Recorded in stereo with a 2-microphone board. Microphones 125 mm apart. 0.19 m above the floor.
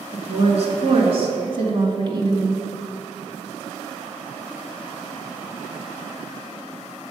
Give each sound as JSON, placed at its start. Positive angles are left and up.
{"t": 0.1, "sound": "a woman speaking", "side_deg": -55, "distance_m": 2.5}